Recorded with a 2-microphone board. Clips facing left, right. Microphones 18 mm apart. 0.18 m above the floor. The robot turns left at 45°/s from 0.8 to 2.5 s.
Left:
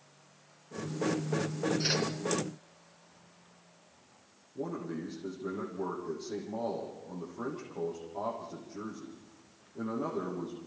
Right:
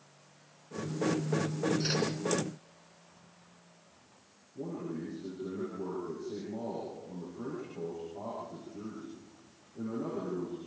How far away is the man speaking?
About 7 m.